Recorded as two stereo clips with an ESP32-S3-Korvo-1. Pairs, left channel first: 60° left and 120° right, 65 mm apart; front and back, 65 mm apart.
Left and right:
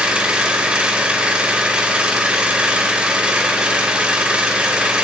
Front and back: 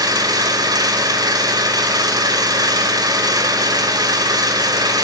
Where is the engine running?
165° left, 2.5 m.